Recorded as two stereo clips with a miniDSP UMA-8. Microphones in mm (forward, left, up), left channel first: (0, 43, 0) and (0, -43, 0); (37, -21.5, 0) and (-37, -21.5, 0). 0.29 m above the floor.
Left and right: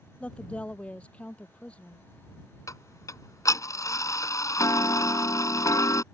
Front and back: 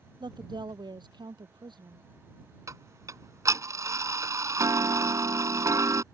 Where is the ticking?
140° left.